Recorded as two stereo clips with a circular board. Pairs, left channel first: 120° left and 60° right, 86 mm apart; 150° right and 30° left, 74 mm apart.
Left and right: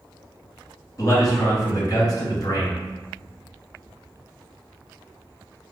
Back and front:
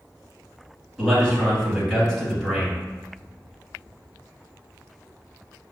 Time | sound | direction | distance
1.0 | a man speaking | 130° left | 1.8 m